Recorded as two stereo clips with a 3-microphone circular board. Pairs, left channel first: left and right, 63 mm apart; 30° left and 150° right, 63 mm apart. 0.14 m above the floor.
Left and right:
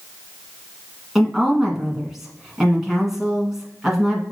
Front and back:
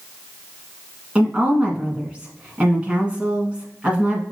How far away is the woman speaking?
About 1.4 m.